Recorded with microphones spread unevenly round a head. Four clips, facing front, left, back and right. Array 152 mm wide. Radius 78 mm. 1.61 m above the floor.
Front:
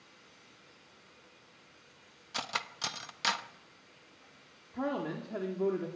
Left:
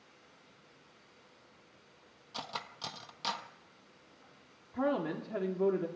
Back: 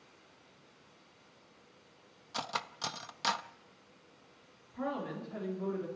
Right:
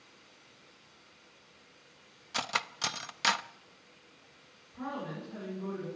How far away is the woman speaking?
About 3.5 m.